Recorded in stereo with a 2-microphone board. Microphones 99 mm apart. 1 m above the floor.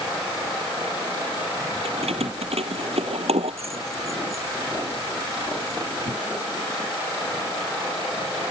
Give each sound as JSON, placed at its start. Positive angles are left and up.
{"t": 1.9, "sound": "keys jangling", "side_deg": -90}